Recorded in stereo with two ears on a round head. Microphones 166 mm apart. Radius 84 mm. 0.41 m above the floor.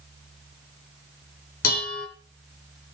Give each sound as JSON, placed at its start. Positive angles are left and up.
{"t": 1.6, "sound": "dishes clattering", "side_deg": 50, "distance_m": 3.0}